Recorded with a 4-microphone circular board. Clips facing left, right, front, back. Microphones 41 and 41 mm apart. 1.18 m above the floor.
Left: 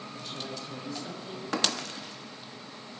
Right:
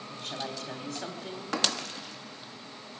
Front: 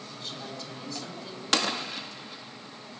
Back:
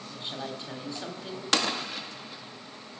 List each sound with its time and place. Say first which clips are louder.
0.1 s a woman speaking: right 4 dB, back 4 dB; 115° right, 3.5 m